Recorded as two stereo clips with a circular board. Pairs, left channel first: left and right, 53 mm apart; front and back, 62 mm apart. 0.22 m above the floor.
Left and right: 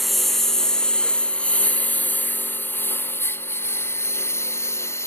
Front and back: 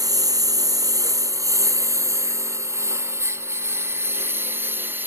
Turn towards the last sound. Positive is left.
turn(degrees=125)